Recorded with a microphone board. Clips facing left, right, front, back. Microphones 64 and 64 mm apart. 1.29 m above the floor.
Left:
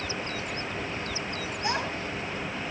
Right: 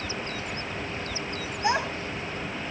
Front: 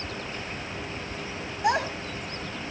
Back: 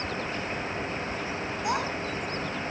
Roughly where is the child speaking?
Ahead.